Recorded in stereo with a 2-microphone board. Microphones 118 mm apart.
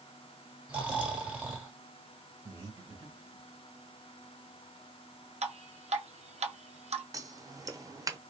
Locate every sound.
0.7 s snoring: 10° right (ahead or behind), 1.0 m
2.5 s breathing: 35° right (ahead or behind), 1.4 m
5.4 s dripping: 70° right (ahead or behind), 0.6 m
7.1 s scissors: 30° right (ahead or behind), 0.5 m